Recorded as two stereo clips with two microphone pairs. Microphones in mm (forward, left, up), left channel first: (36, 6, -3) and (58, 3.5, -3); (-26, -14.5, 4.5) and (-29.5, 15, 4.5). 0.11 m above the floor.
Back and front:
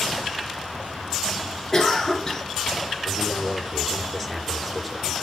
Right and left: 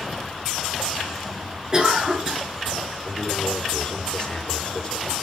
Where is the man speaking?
120° right, 2.0 m.